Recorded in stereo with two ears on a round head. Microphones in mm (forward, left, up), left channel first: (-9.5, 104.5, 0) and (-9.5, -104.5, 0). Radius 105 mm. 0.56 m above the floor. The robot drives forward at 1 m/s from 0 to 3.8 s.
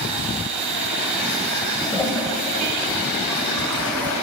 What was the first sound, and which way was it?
A toilet flushing, 15° left (ahead or behind).